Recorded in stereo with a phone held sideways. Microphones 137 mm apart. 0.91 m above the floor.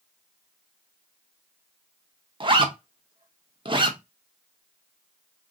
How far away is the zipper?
About 0.6 m.